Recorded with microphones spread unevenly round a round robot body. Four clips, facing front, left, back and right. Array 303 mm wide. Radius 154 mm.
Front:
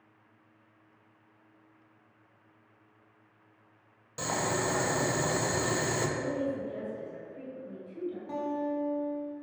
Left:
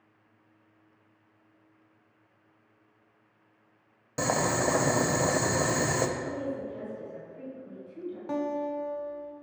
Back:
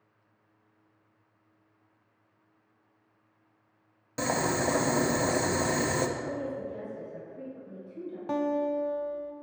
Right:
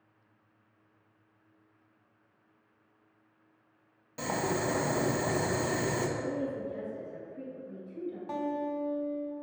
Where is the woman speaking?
30° right, 2.5 m.